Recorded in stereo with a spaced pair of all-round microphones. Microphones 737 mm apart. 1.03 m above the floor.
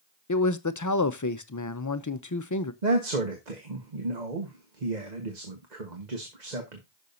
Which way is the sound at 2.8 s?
70° right (ahead or behind).